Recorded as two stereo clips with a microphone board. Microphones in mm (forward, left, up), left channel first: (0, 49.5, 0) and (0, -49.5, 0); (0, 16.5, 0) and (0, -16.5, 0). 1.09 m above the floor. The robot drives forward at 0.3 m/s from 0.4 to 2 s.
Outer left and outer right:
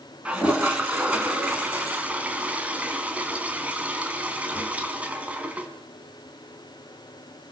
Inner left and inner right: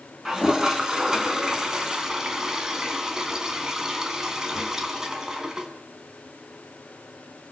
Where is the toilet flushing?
10° right (ahead or behind), 3 m; by 5.7 s 15° right (ahead or behind), 2.5 m.